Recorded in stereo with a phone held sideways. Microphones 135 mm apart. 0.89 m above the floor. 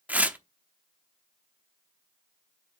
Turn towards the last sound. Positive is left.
turn(degrees=-10)  # may be behind; listen again after turning